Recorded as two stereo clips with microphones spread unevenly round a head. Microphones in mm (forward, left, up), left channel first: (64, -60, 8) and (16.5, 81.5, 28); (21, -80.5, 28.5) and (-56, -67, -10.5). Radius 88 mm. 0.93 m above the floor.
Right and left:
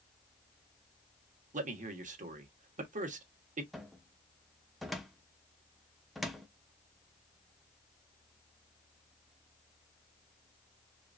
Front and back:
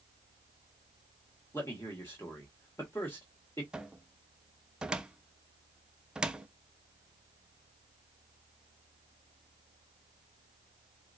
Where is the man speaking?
70° left, 1.3 m.